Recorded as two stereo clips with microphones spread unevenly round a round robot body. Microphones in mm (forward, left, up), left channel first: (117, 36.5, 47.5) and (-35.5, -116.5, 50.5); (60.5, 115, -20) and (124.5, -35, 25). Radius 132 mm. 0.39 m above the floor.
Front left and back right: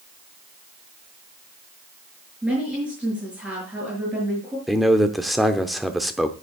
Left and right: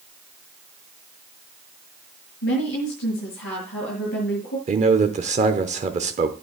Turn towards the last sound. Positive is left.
turn(degrees=-45)